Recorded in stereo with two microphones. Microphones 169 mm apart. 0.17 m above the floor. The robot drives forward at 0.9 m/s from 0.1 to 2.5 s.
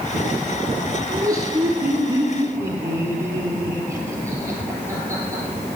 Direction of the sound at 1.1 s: 20° right (ahead or behind).